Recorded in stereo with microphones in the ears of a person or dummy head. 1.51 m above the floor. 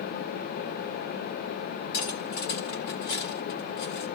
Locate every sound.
1.9 s cutlery clinking: 60° left (ahead or behind), 2 m